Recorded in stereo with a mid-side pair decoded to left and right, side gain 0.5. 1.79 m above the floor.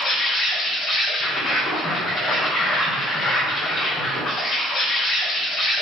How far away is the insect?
About 1.3 m.